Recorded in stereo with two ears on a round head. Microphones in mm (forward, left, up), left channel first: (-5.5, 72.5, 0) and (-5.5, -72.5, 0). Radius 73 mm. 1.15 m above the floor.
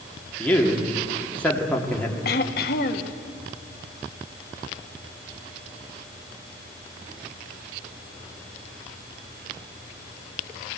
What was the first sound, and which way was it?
A man speaking, 10° left (ahead or behind).